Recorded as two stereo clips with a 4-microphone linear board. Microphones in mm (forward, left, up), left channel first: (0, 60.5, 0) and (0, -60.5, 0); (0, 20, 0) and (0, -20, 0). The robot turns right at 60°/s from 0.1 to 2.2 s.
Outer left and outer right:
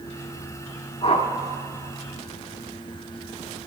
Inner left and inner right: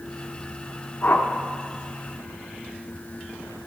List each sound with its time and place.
1.0 s a whoosh: 50° left (ahead or behind), 0.7 m; by 1.3 s 65° left (ahead or behind), 0.7 m